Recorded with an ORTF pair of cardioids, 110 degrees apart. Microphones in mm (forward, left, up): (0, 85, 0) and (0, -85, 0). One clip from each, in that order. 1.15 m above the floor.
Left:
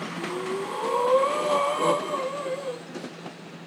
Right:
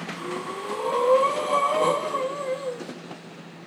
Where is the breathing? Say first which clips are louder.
Left 3 dB; 15° right, 2 m.